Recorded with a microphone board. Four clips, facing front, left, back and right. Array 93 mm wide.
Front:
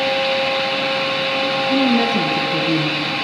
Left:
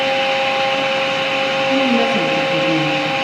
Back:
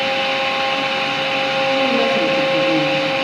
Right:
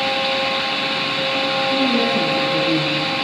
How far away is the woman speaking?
About 3.5 m.